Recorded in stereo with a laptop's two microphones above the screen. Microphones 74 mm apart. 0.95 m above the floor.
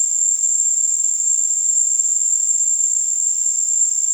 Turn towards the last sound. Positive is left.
turn(degrees=-40)  # may be behind; listen again after turning